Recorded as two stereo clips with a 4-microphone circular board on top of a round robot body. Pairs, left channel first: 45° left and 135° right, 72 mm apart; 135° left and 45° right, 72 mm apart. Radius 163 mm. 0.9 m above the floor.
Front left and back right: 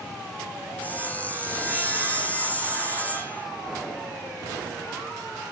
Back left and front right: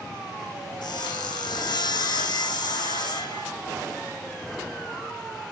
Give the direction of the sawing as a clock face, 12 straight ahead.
8 o'clock.